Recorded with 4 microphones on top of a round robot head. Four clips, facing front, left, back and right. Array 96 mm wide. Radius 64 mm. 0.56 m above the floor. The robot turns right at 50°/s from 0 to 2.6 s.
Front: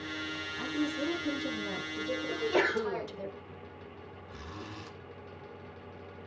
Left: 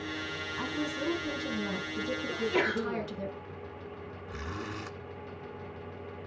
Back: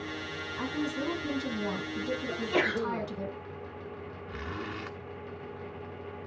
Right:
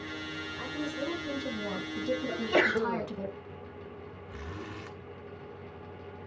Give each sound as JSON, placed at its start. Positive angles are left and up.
{"t": 0.6, "sound": "a woman speaking", "azimuth_deg": 135, "distance_m": 4.0}
{"t": 2.3, "sound": "a sneeze", "azimuth_deg": -100, "distance_m": 2.5}
{"t": 4.3, "sound": "a zipper", "azimuth_deg": 160, "distance_m": 1.2}